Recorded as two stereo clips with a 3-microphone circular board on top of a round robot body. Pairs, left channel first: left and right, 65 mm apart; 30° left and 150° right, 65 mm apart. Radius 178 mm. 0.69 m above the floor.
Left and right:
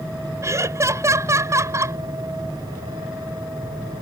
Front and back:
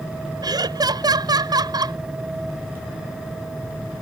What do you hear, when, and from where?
0.4 s laughter: 135° right